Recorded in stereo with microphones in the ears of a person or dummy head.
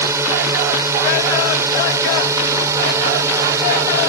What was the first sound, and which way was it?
A drone, 15° right (ahead or behind).